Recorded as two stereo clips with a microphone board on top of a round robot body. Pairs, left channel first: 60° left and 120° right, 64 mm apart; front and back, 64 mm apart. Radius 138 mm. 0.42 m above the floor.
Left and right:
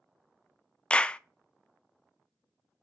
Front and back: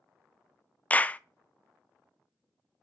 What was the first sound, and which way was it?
A clap, 15° left.